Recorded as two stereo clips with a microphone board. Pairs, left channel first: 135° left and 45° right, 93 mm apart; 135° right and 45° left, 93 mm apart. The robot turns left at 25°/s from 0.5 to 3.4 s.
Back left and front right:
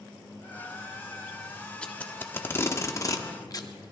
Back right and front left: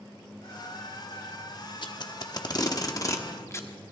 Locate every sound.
1.8 s tape being pulled: 150° right, 1.0 m; by 3.7 s 170° left, 1.0 m